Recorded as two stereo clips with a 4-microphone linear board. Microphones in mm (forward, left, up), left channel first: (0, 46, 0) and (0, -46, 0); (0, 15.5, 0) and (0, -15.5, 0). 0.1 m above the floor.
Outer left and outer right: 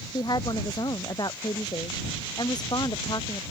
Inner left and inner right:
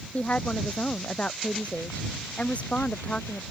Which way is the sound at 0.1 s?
45° left (ahead or behind).